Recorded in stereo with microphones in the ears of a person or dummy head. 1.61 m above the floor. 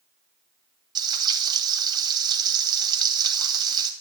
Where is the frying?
25° right (ahead or behind), 2 m.